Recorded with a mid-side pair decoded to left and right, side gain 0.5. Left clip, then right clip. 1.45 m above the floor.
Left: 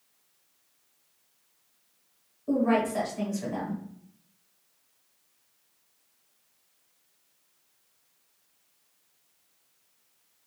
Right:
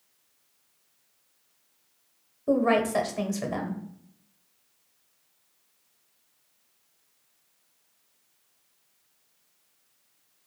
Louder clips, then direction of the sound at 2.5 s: Right 3 dB; 65° right.